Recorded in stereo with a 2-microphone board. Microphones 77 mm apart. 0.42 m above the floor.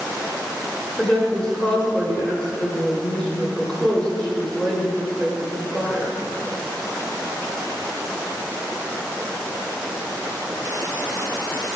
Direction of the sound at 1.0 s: 10° left (ahead or behind).